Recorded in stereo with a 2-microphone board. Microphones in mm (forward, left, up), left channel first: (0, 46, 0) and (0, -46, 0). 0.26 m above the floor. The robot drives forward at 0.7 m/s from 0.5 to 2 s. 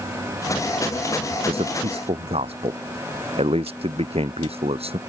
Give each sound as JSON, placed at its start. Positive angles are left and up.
{"t": 1.3, "sound": "a man speaking", "side_deg": -80}